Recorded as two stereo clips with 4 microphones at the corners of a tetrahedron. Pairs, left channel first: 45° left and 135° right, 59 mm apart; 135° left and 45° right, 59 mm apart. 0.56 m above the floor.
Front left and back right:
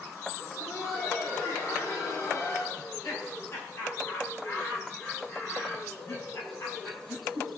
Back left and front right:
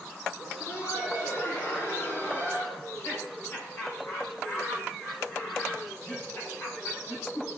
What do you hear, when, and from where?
0.4 s laughter: 90° left, 5.5 m; by 2.7 s 80° left, 4.5 m
2.8 s laughter: 90° left, 5 m